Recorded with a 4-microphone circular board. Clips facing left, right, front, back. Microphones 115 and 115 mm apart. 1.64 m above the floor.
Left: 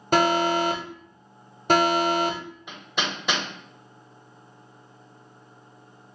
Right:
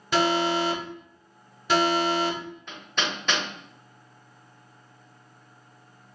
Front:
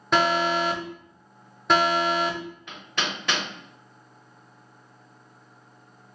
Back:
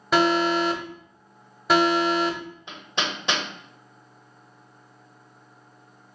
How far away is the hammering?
About 0.9 m.